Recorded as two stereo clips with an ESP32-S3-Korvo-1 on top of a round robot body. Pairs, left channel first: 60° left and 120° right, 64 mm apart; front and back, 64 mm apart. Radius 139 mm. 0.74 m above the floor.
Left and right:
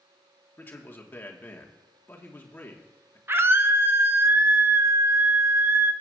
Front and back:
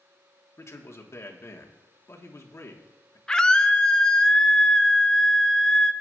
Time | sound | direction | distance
0.6 | a man speaking | 15° left | 1.4 m
3.3 | a scream | 80° right | 0.9 m